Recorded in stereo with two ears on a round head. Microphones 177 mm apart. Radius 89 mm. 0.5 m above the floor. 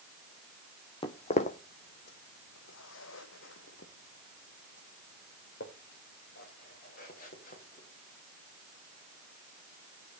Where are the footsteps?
25° left (ahead or behind), 1.2 m; by 10.2 s 40° left (ahead or behind), 6 m.